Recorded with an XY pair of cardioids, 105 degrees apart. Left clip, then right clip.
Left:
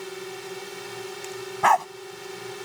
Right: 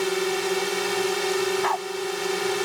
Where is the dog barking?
50° left.